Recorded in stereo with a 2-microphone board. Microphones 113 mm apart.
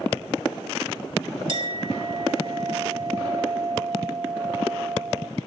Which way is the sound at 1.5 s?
45° right (ahead or behind).